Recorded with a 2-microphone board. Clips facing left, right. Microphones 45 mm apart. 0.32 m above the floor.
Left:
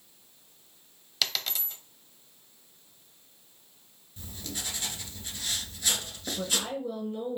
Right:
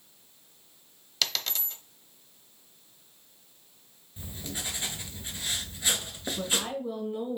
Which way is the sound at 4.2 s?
20° right (ahead or behind).